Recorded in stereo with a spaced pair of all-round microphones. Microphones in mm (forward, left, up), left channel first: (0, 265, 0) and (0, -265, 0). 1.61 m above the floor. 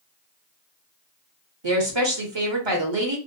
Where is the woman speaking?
55° right (ahead or behind), 1.1 m.